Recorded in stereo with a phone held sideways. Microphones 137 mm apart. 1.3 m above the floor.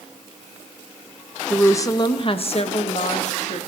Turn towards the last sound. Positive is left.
turn(degrees=60)  # may be behind; listen again after turning